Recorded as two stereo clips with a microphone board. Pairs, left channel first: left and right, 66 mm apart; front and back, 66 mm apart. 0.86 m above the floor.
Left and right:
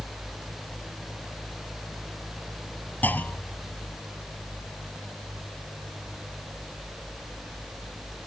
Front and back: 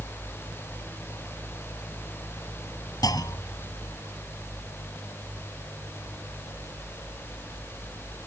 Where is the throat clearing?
No throat clearing in this recording.